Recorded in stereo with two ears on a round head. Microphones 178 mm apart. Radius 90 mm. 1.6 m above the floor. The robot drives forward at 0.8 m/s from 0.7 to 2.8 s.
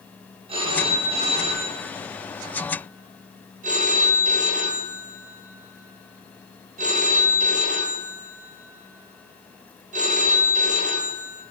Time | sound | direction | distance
0.5 | a phone ringing | 30° right (ahead or behind) | 5.5 m